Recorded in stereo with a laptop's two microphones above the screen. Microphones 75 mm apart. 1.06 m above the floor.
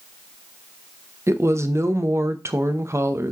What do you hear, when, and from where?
1.3 s a woman speaking: 40° right (ahead or behind), 0.7 m